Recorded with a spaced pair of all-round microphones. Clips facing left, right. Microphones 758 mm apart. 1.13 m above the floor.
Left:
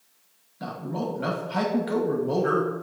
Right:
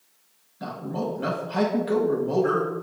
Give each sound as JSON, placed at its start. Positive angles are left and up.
{"t": 0.6, "sound": "a man speaking", "side_deg": 5, "distance_m": 0.8}